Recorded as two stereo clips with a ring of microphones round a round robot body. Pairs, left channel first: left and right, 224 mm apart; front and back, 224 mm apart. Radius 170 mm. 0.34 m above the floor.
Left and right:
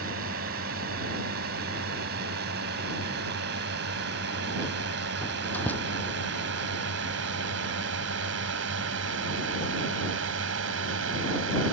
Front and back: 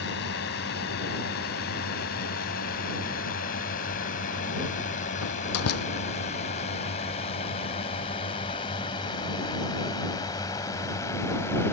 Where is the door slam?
5° left.